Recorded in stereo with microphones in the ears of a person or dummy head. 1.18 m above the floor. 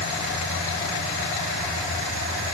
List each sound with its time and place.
Only background noise.